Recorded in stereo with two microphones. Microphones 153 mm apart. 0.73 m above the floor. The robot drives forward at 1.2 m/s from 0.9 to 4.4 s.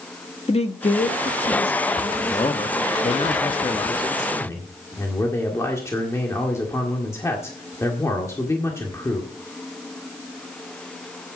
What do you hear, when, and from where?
0.5 s a woman speaking: 40° left (ahead or behind), 1.0 m; by 3.3 s 15° left (ahead or behind), 2.5 m
2.3 s a man speaking: 25° left (ahead or behind), 1.3 m; by 9.3 s 20° left (ahead or behind), 1.8 m